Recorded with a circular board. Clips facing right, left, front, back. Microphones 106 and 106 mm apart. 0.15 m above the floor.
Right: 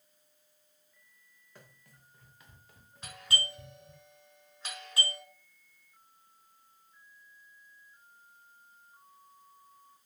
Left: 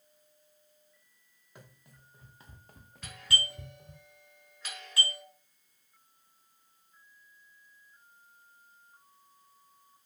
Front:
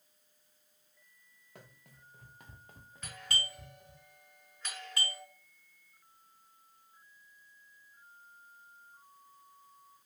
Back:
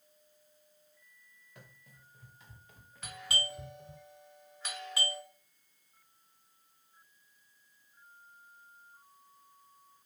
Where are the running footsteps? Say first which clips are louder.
Left 2 dB, front 2 dB; 15° left, 1.6 m; by 4.0 s 135° left, 1.0 m.